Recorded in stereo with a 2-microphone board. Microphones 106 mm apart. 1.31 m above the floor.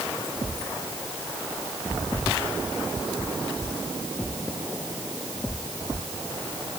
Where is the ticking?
No ticking in this recording.